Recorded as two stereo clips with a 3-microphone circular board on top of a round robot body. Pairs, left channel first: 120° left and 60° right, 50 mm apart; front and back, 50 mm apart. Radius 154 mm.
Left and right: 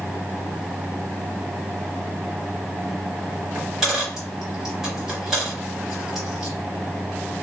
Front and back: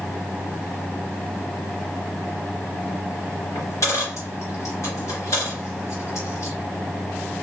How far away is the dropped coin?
About 0.9 m.